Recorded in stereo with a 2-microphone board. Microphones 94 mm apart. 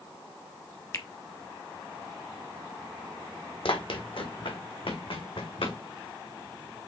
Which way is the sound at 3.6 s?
65° left (ahead or behind).